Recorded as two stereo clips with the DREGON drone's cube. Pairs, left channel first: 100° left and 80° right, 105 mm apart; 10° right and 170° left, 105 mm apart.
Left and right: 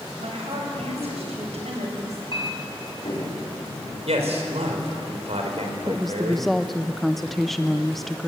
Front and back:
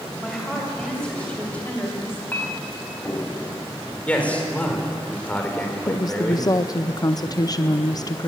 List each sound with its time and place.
0.2 s a woman speaking: 100° right, 7.5 m; by 2.2 s 75° right, 6 m
2.3 s a clink: 60° left, 4.5 m
4.1 s a man speaking: 85° right, 4.5 m
5.9 s a woman speaking: 15° left, 0.6 m